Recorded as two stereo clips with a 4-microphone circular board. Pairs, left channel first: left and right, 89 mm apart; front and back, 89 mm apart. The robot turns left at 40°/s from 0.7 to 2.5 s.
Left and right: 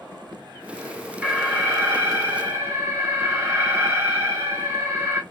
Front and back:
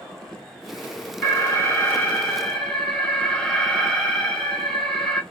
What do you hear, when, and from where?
1.2 s an alarm: 25° right, 1.0 m; by 5.2 s 75° right, 1.0 m